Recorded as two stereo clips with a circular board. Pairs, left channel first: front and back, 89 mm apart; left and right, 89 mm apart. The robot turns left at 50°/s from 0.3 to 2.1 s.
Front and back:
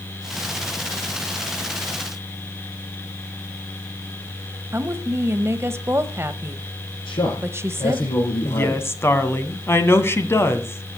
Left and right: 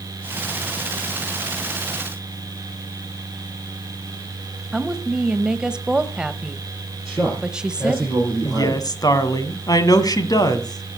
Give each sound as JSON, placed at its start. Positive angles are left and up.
{"t": 4.7, "sound": "a woman speaking", "azimuth_deg": -160, "distance_m": 1.1}
{"t": 7.0, "sound": "a man speaking", "azimuth_deg": 5, "distance_m": 7.0}
{"t": 8.4, "sound": "a woman speaking", "azimuth_deg": 55, "distance_m": 1.7}